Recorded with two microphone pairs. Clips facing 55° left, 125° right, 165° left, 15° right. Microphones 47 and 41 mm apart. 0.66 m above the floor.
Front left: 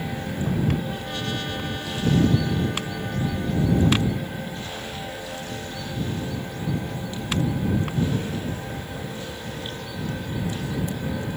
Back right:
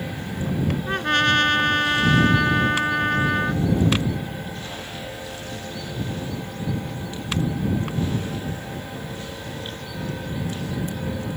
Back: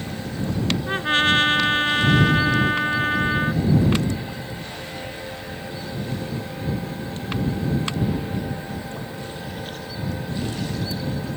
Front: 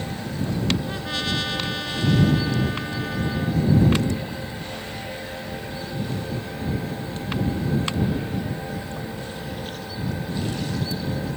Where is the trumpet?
150° right.